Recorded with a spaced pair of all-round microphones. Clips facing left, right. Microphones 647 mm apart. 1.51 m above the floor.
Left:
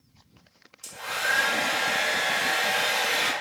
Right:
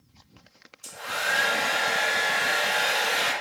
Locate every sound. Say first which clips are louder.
0.8 s a hair dryer: right 1 dB; 55° left (ahead or behind), 0.7 m